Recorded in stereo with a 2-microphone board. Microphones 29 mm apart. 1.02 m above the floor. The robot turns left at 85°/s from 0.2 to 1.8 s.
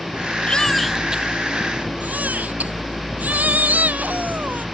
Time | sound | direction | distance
0.5 | a baby crying | 35° left | ?